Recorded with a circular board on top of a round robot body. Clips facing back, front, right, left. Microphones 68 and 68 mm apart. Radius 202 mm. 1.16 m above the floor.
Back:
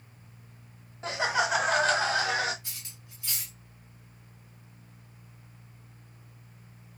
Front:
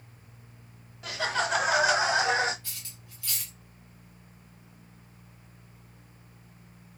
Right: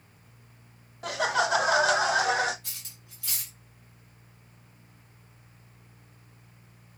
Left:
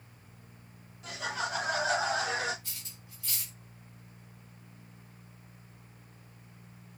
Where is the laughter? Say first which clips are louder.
Back 2 dB, right 9 dB; 120° right, 0.7 m; by 2.5 s 65° right, 1.2 m.